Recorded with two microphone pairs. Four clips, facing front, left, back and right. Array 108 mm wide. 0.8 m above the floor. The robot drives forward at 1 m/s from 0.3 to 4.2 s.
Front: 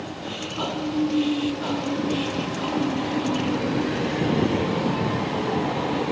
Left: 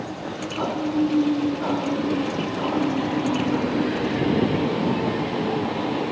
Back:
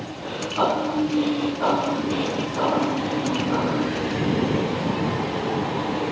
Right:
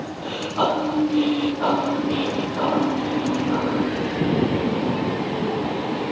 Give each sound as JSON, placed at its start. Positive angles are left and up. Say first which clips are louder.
{"t": 0.2, "sound": "breathing", "louder": "right 6 dB, back 9 dB", "azimuth_deg": -125}